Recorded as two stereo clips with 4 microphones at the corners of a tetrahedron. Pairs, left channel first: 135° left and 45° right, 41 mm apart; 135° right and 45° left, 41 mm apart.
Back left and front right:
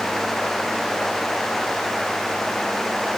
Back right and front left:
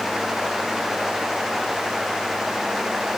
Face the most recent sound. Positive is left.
No sound to turn to.